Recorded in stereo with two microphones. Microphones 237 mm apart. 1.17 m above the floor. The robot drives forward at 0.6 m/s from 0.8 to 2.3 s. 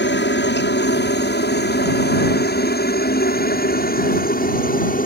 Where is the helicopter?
50° left (ahead or behind); by 5.1 s 35° left (ahead or behind).